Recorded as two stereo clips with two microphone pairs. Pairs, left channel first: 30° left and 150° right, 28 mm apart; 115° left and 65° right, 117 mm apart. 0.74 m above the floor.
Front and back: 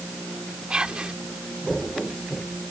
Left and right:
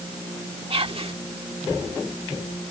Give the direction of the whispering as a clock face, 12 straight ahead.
3 o'clock.